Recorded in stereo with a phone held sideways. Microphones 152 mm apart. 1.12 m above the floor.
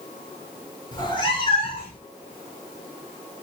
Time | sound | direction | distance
0.9 | a cat meowing | 30° left (ahead or behind) | 1.1 m